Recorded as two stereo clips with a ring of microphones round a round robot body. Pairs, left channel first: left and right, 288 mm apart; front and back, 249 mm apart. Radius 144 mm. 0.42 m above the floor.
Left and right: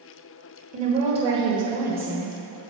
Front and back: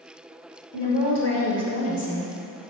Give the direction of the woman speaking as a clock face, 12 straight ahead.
1 o'clock.